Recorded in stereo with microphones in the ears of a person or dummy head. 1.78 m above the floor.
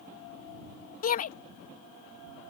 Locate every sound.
1.0 s a shout: 50° left (ahead or behind)